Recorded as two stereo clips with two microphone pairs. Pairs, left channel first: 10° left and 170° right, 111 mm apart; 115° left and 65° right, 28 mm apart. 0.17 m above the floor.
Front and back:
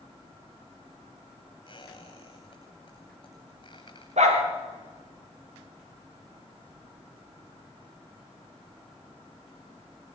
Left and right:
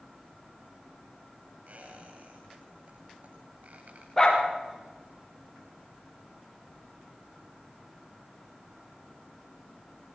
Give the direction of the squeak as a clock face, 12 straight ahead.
1 o'clock.